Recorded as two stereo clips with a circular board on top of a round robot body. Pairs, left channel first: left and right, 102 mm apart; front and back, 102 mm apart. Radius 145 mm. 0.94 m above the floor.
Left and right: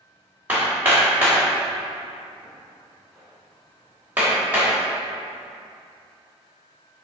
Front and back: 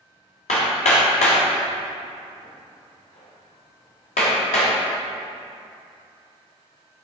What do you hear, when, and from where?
0.5 s hammering: 15° right, 1.0 m